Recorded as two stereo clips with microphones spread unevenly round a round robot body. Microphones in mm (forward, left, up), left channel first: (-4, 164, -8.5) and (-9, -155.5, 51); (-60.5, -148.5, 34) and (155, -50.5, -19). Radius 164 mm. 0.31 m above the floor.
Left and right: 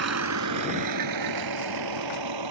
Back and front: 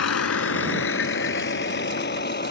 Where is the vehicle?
140° right; by 2.5 s 110° right.